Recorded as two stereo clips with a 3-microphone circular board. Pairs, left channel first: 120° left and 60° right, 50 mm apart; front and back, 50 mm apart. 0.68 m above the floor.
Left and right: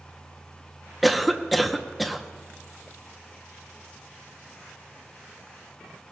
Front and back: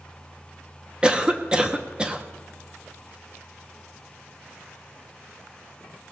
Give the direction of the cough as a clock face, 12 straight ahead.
5 o'clock.